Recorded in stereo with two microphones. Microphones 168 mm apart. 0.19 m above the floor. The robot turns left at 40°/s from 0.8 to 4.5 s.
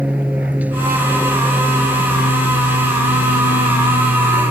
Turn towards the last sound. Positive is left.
turn(degrees=40)